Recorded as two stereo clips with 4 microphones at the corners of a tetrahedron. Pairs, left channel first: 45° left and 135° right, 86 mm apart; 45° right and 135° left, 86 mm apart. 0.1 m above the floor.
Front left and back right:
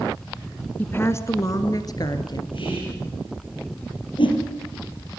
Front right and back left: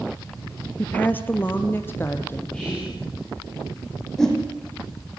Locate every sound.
0.8 s a woman speaking: straight ahead, 1.3 m; by 2.4 s 15° left, 2.5 m
2.5 s whispering: 35° left, 9 m
4.2 s a whoosh: 40° left, 4 m